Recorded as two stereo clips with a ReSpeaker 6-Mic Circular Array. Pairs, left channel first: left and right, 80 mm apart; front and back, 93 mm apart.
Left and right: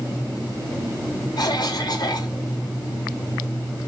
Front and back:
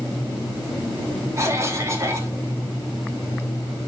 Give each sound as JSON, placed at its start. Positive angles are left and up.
{"t": 1.4, "sound": "a cough", "azimuth_deg": 120, "distance_m": 3.0}